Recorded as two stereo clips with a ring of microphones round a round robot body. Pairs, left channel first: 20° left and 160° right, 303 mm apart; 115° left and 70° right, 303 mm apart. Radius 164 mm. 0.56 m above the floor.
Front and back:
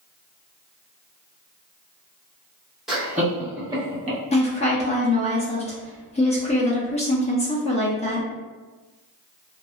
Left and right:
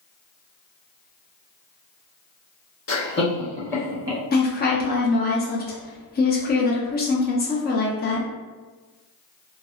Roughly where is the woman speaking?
Left.